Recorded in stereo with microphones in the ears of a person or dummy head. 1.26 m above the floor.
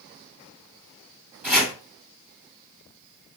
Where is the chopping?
5° right (ahead or behind), 1.7 m.